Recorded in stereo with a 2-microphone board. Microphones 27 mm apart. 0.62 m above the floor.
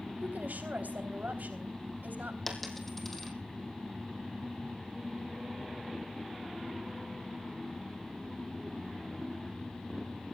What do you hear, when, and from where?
0.2 s a woman speaking: 75° right (ahead or behind), 3.5 m
2.5 s a dropped coin: 5° left (ahead or behind), 3 m